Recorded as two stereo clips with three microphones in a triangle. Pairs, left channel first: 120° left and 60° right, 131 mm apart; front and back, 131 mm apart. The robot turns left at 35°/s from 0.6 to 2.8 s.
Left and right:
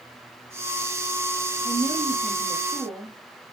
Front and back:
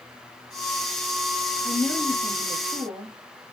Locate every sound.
1.6 s a woman speaking: 65° right, 3 m; by 3.2 s 110° right, 3 m